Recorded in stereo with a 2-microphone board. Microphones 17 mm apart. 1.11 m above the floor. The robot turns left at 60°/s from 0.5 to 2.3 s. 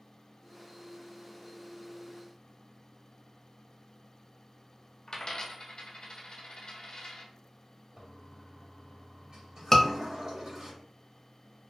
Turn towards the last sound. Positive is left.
turn(degrees=20)  # may be behind; listen again after turning